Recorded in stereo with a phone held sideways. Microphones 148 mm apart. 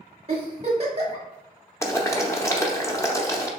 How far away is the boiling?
About 0.7 m.